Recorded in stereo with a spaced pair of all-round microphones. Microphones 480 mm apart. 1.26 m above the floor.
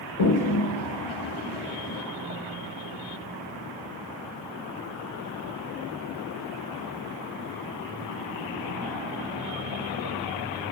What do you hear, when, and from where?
0.2 s a toilet flushing: 80° left, 1.4 m